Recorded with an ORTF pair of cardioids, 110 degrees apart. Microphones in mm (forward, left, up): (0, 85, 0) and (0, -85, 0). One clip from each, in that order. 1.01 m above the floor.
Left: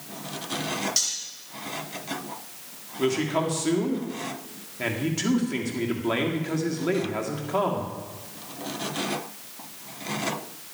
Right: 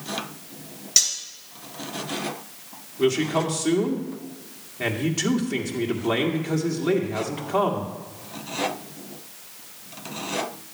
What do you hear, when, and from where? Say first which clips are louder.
1.0 s cutlery clinking: right 8 dB; 35° right, 2.5 m
3.0 s a man speaking: right 3 dB; 10° right, 1.8 m